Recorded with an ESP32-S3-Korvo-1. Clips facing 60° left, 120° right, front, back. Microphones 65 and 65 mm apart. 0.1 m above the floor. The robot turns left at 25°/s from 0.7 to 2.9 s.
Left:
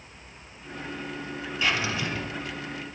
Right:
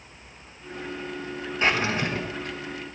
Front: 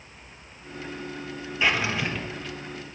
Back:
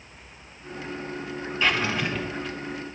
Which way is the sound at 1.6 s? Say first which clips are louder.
Right 3 dB, even; 75° right.